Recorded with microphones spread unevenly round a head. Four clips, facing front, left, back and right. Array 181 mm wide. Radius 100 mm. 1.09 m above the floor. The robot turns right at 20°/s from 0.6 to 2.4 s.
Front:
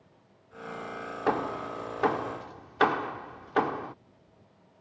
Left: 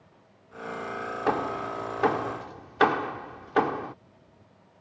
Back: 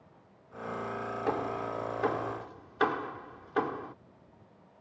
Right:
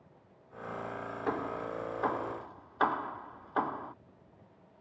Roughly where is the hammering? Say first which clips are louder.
Left 7 dB, front 4 dB; ahead.